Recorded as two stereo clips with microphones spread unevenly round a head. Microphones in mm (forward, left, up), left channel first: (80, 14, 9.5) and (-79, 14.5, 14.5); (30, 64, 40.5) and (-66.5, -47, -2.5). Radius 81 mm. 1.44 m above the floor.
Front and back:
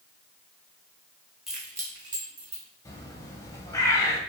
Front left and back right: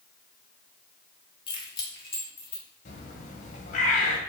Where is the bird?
75° left, 0.9 m.